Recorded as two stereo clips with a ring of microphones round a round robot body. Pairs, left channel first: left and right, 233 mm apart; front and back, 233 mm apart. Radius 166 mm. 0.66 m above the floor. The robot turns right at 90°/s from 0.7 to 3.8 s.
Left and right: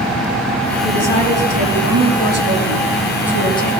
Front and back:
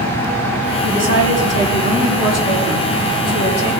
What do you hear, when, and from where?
0.8 s a woman speaking: 135° left, 4.5 m; by 3.7 s 30° left, 4.5 m